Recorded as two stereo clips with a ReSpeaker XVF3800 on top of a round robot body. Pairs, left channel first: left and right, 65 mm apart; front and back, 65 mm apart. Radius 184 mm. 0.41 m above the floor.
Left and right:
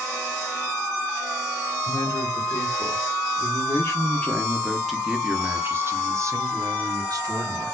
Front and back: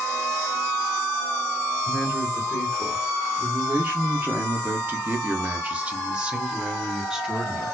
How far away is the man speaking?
About 1.8 m.